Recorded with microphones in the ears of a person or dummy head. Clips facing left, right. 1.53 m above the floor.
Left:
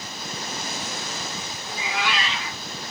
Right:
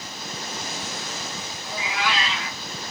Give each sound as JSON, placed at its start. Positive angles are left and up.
{"t": 1.6, "sound": "a cat meowing", "side_deg": -55, "distance_m": 1.7}